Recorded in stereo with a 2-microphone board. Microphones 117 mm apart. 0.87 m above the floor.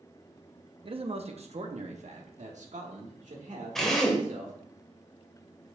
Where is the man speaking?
45° right (ahead or behind), 0.8 m; by 4.5 s 80° right, 2.5 m.